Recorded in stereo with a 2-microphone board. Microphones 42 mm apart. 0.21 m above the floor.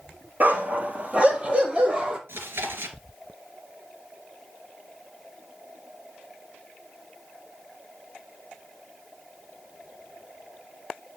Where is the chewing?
70° right (ahead or behind), 2.5 m.